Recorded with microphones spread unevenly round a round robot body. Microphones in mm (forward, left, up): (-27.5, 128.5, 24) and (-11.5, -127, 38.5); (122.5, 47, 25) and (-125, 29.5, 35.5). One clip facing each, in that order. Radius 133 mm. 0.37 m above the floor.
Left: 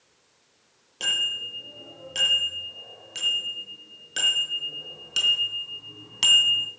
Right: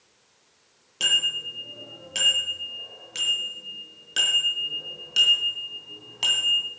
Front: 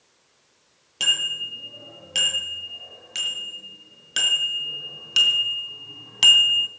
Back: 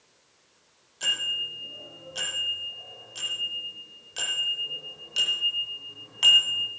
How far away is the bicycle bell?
About 7.5 m.